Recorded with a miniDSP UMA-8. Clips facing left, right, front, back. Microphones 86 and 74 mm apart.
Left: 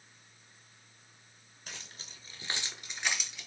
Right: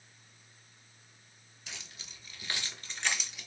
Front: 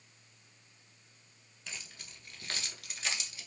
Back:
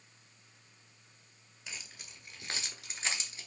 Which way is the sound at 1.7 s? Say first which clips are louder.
Left 1 dB, even; 105° left.